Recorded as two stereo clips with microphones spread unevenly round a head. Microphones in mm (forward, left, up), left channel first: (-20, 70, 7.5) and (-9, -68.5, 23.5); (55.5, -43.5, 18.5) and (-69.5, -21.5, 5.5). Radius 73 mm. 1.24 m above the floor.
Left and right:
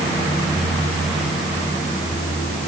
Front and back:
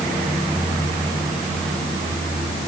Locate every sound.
Only background noise.